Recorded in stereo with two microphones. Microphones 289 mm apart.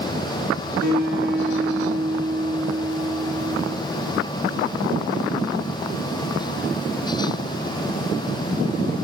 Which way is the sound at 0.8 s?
60° right (ahead or behind).